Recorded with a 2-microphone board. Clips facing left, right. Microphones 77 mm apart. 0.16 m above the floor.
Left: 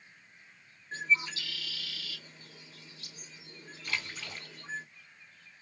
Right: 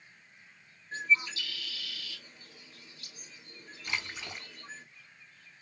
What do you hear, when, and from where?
0.9 s a bird: 25° left (ahead or behind), 1.5 m
3.9 s a splash: 20° right (ahead or behind), 0.5 m